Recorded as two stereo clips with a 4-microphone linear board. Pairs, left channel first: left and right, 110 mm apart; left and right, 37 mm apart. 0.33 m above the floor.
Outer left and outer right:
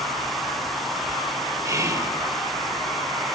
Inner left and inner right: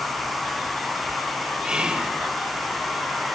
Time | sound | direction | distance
1.6 | whispering | 30° right (ahead or behind) | 1.4 m